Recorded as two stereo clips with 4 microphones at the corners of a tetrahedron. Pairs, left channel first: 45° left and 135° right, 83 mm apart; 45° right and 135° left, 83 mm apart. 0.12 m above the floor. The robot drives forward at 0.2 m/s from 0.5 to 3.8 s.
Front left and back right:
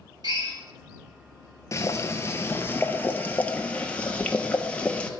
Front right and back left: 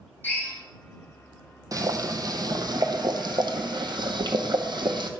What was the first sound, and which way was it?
A drill, 110° right.